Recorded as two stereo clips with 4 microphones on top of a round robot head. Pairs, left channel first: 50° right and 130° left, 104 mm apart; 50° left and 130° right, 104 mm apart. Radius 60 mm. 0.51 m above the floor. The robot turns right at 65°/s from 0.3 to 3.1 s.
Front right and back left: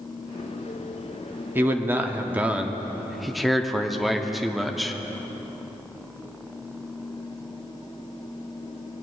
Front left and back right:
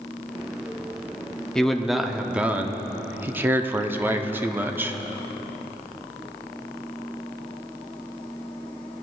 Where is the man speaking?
120° left, 0.6 m; by 5.0 s 140° right, 0.6 m.